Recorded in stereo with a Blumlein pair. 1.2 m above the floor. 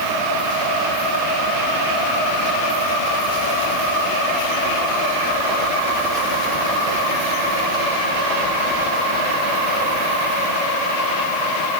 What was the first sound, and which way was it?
Only background noise.